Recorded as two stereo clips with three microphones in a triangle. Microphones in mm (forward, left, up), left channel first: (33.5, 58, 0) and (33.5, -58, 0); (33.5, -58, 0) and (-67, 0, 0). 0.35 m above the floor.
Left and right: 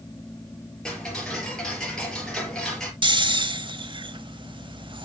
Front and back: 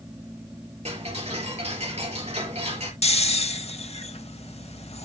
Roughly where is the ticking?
Behind.